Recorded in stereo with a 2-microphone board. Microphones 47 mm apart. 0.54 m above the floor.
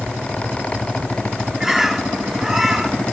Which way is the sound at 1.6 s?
5° right (ahead or behind).